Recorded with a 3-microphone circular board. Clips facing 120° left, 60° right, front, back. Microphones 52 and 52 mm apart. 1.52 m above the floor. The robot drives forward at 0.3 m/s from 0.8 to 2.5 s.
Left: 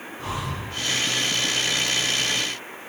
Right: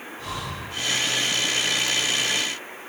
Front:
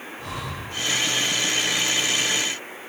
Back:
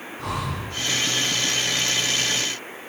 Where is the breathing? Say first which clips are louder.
Left 3 dB, back 5 dB; 175° right, 1.0 m.